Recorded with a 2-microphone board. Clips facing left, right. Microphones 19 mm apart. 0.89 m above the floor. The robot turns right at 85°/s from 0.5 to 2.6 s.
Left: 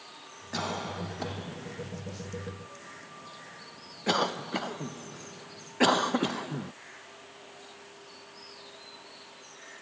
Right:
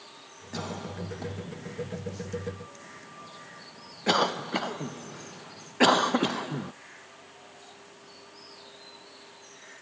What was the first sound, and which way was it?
A cough, 15° left (ahead or behind).